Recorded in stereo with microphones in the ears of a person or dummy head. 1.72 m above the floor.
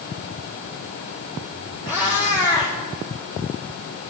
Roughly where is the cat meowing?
Centre.